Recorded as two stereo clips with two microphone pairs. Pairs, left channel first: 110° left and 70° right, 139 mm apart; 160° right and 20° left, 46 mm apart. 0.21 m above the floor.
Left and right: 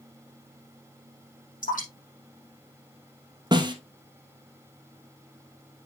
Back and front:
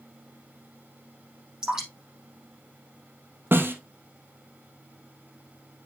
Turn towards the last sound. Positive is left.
turn(degrees=-15)